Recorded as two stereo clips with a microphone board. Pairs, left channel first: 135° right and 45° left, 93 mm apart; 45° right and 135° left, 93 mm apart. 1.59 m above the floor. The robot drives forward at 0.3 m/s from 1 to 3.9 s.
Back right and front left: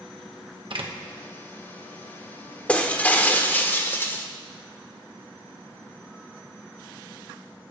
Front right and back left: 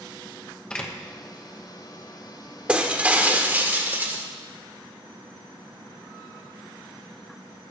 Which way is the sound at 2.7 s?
175° right.